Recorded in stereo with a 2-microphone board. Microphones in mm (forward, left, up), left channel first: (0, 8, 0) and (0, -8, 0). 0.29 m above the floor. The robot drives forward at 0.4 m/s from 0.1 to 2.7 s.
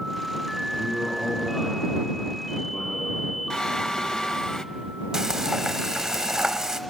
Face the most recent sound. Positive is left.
turn(degrees=-30)  # may be behind; listen again after turning